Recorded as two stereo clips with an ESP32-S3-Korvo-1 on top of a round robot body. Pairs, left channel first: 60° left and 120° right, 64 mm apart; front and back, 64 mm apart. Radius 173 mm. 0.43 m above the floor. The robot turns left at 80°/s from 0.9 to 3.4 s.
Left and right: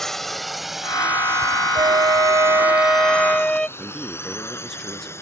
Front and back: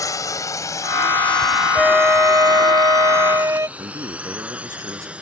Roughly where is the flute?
Right.